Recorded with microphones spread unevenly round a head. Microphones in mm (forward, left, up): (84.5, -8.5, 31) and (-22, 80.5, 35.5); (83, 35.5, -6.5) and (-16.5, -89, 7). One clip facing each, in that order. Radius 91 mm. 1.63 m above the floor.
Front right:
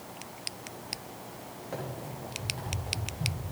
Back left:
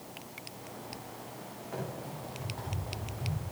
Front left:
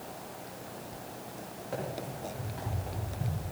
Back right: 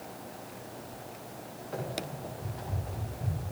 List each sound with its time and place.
1.7 s running footsteps: 15° left, 6 m; by 3.4 s 35° left, 6 m